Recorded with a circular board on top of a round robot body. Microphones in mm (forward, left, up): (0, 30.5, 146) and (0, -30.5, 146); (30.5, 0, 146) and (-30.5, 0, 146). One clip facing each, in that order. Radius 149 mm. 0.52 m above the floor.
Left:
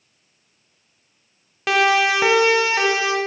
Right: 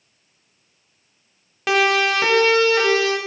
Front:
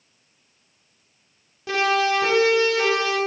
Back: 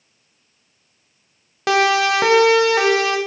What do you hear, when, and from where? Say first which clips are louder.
1.7 s a siren: left 1 dB, back 5 dB; straight behind, 3 m; by 3.2 s 160° left, 4.5 m